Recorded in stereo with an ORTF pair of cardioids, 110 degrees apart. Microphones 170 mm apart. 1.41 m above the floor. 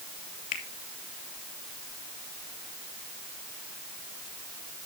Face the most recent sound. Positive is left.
turn(degrees=55)